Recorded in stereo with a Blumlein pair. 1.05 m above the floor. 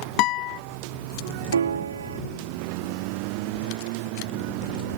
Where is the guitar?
40° left.